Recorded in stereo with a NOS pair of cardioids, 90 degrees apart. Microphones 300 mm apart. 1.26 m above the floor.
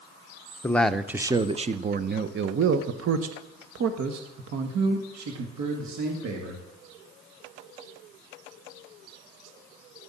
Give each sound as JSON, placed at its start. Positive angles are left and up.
{"t": 0.6, "sound": "a man speaking", "azimuth_deg": 10, "distance_m": 1.0}